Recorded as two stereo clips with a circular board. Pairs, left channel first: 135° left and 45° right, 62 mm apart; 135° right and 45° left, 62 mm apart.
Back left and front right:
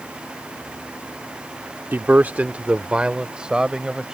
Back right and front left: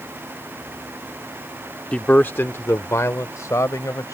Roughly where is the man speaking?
Right.